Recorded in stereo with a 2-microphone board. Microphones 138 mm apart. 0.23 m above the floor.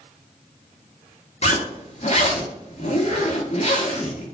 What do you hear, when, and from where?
1.4 s a zipper: 50° left (ahead or behind), 0.8 m